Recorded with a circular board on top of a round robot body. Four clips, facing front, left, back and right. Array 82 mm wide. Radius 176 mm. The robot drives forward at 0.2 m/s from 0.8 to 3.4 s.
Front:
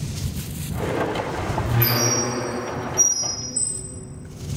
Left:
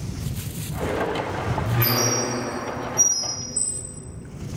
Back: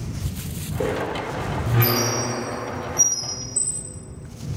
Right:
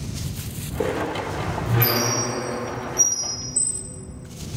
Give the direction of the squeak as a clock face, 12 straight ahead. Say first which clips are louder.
Even, front 1 dB; 4 o'clock.